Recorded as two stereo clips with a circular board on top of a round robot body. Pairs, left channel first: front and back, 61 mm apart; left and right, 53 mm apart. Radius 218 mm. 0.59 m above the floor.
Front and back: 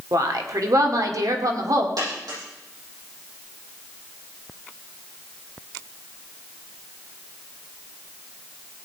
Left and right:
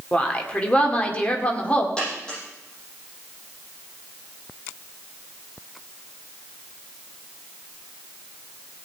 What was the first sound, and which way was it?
A woman speaking, 155° left.